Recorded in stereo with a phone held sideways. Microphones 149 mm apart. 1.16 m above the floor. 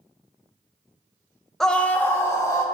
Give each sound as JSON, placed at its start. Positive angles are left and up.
{"t": 1.6, "sound": "a scream", "side_deg": 0, "distance_m": 0.8}